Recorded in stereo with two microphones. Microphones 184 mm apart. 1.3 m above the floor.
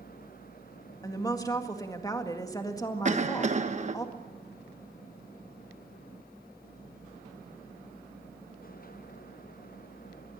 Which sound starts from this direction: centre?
A woman speaking, at 1.0 s.